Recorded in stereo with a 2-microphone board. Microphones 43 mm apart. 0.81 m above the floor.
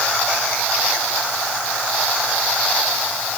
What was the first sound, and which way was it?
Only background noise.